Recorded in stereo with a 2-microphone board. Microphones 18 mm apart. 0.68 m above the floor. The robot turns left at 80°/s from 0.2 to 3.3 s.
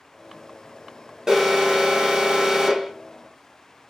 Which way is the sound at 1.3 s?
35° right.